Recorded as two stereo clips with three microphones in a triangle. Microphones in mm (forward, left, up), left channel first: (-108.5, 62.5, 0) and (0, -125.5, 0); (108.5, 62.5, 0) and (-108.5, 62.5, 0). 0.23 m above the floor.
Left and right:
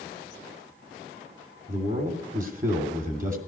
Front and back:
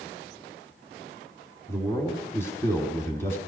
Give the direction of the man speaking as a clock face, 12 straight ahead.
2 o'clock.